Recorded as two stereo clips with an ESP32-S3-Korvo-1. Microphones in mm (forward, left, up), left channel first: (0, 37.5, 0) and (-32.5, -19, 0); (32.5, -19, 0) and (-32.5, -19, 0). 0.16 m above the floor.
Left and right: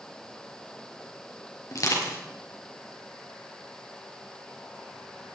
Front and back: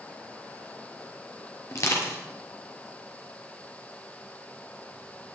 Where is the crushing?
35° left, 3.5 m.